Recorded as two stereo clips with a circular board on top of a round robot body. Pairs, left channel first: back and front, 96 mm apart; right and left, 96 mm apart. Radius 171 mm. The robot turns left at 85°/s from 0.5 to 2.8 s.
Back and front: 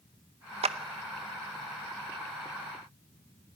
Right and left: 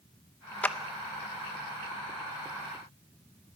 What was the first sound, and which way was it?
A clap, 10° right.